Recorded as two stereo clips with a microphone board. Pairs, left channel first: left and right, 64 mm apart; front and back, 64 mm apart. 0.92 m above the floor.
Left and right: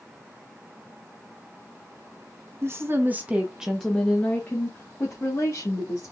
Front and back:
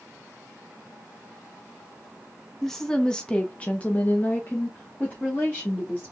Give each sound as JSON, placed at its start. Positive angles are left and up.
{"t": 2.6, "sound": "a woman speaking", "azimuth_deg": -85, "distance_m": 1.0}